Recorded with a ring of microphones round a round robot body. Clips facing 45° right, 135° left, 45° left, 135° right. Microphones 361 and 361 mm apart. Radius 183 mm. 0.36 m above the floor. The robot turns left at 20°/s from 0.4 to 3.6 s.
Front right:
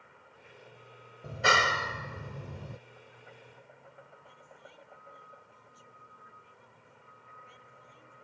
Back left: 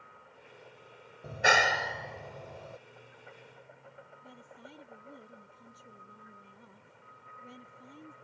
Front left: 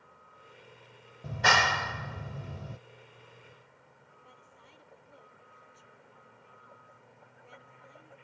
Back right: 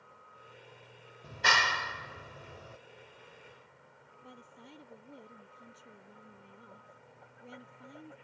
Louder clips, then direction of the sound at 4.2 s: Back left 4 dB, back right 9 dB; straight behind.